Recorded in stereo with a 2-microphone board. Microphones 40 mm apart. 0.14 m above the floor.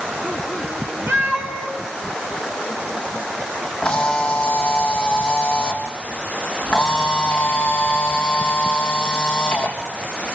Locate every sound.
1.1 s a cat meowing: 90° right, 7.5 m
3.8 s a camera shutter: 25° left (ahead or behind), 3.5 m